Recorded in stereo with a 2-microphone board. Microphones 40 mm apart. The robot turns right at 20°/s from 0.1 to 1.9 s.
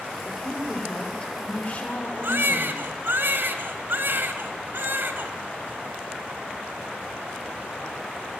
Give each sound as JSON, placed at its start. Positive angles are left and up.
{"t": 0.2, "sound": "a woman speaking", "azimuth_deg": 5, "distance_m": 5.5}
{"t": 2.2, "sound": "a baby crying", "side_deg": -55, "distance_m": 2.0}